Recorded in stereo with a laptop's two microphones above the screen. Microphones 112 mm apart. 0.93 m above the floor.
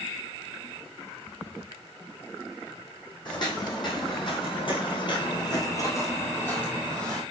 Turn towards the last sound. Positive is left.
turn(degrees=5)  # may be behind; listen again after turning